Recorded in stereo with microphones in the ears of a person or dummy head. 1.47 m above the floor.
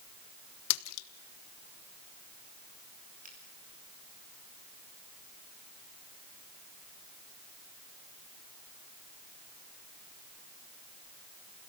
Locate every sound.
0.7 s a splash: 75° left (ahead or behind), 1.1 m
3.2 s a finger snap: 40° right (ahead or behind), 4.5 m